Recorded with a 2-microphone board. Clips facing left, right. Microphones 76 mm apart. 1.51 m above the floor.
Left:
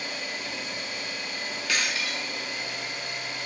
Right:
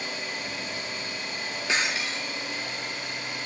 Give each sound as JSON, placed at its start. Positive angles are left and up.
{"t": 0.0, "sound": "an engine running", "side_deg": -35, "distance_m": 5.5}
{"t": 1.7, "sound": "breaking glass", "side_deg": -25, "distance_m": 0.6}